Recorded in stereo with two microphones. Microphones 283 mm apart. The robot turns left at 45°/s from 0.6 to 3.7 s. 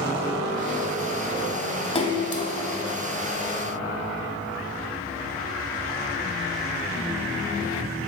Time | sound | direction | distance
1.9 | a splash | 20° left (ahead or behind) | 1.1 m